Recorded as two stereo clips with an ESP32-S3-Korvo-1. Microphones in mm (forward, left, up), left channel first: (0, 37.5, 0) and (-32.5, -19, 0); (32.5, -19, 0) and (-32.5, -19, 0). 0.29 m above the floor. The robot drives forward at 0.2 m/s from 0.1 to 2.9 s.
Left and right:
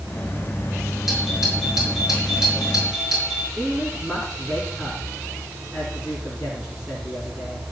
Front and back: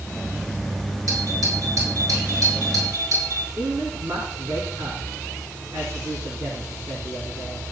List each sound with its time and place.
1.1 s a doorbell: 160° left, 7.5 m
3.6 s a man speaking: 150° left, 3 m